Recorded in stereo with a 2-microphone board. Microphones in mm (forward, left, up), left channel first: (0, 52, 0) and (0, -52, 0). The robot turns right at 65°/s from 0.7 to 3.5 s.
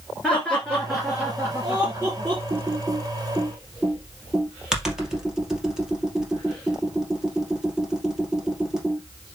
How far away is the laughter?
About 2 m.